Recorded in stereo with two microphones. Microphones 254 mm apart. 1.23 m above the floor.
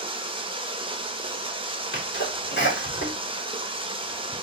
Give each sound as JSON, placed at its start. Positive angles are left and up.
{"t": 0.0, "sound": "running water", "side_deg": -20, "distance_m": 0.7}
{"t": 1.9, "sound": "a sneeze", "side_deg": 45, "distance_m": 2.0}